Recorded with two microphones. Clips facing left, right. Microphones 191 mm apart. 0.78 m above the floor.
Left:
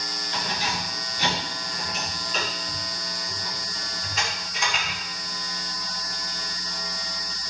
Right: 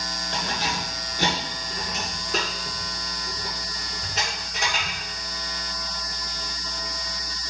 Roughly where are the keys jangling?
Right.